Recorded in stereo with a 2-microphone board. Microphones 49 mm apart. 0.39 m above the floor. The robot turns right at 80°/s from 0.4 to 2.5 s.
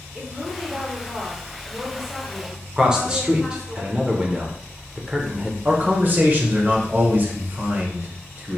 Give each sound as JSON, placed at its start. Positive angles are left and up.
{"t": 0.1, "sound": "a woman speaking", "side_deg": -15, "distance_m": 1.1}
{"t": 2.8, "sound": "a man speaking", "side_deg": -15, "distance_m": 0.8}
{"t": 5.7, "sound": "a man speaking", "side_deg": -40, "distance_m": 1.0}